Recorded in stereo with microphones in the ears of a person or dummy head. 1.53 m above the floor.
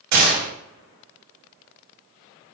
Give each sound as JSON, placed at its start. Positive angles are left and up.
{"t": 0.1, "sound": "a gunshot", "side_deg": -70, "distance_m": 4.0}